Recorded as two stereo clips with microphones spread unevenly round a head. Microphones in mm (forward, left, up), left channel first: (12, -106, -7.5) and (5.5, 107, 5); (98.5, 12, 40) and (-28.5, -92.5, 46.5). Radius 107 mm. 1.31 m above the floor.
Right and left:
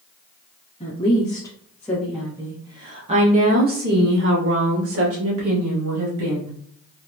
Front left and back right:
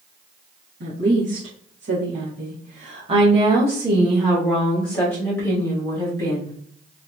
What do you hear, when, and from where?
0.8 s a woman speaking: 155° right, 1.4 m; by 6.6 s 110° left, 2.5 m